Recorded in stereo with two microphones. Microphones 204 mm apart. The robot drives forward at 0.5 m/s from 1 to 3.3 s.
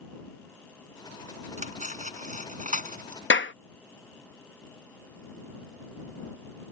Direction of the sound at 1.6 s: 35° right (ahead or behind).